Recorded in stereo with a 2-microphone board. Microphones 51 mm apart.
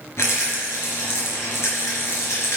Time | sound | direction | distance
0.2 | a rattle | 70° left (ahead or behind) | 3.5 m